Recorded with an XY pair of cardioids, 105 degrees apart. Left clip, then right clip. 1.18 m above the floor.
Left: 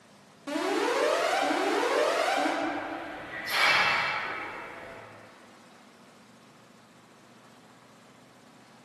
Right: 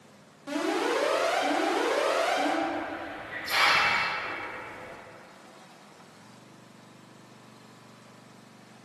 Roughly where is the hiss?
Ahead.